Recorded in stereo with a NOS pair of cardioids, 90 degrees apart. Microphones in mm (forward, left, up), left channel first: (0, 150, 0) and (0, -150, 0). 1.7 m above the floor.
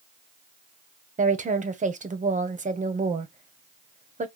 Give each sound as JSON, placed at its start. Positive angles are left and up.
{"t": 1.2, "sound": "a woman speaking", "azimuth_deg": -25, "distance_m": 1.4}